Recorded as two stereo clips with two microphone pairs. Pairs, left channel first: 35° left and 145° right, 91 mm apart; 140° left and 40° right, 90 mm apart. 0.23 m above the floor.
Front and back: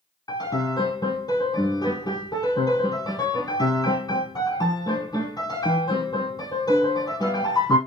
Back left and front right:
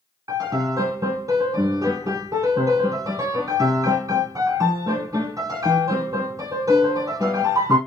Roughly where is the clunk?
No clunk in this recording.